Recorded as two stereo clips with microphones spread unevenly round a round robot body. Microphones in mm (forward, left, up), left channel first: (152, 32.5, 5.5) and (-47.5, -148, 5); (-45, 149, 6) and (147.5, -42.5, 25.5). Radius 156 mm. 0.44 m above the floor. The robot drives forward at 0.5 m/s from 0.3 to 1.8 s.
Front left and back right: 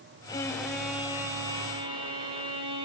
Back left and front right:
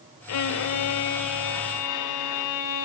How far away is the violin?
About 0.9 m.